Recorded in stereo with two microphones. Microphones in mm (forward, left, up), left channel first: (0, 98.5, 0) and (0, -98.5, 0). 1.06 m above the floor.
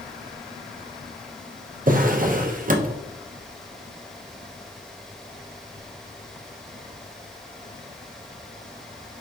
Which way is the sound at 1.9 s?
40° right (ahead or behind).